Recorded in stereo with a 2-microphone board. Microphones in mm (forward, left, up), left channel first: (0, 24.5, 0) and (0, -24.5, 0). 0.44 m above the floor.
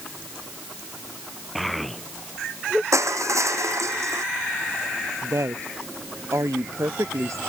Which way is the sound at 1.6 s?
Centre (ahead or behind).